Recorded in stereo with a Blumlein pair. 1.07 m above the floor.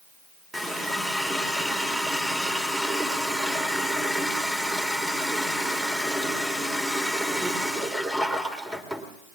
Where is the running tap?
10° right, 2.5 m.